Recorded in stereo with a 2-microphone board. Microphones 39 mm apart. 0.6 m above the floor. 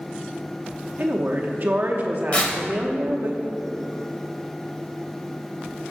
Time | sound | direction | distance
1.0 | a woman speaking | 45° right (ahead or behind) | 0.8 m
2.3 | tearing paper | 30° left (ahead or behind) | 0.9 m